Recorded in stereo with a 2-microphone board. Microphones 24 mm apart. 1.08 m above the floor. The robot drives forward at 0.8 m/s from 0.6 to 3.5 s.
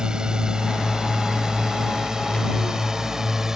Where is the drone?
25° right (ahead or behind); by 3.6 s 15° right (ahead or behind).